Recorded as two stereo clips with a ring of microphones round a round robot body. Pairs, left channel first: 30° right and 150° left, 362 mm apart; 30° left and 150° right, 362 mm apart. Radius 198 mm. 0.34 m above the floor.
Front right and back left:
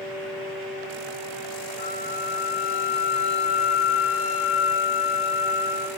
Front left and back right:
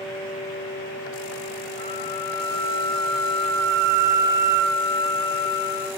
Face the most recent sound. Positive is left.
turn(degrees=-50)